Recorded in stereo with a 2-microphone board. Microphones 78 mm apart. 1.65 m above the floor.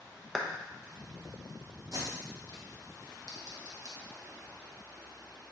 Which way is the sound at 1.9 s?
50° right (ahead or behind).